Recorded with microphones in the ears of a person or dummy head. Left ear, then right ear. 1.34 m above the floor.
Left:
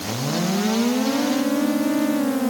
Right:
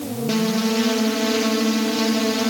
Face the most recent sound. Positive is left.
No sound to turn to.